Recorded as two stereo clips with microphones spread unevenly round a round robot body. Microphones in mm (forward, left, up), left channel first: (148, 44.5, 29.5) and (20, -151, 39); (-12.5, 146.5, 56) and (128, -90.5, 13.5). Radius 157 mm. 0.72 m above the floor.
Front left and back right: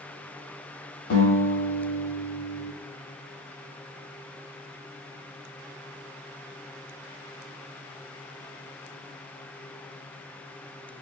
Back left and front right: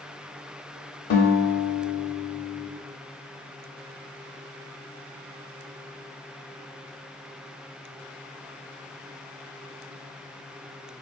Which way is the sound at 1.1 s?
95° left.